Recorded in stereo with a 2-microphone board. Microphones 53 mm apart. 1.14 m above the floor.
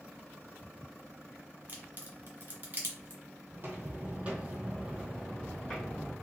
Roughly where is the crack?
Right.